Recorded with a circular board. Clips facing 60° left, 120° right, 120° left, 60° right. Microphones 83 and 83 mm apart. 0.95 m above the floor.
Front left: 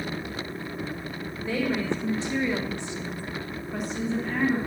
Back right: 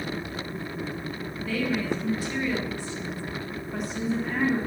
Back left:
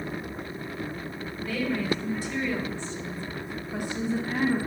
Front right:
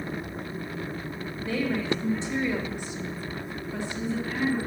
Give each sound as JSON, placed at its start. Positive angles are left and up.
{"t": 1.4, "sound": "a woman speaking", "azimuth_deg": 0, "distance_m": 1.6}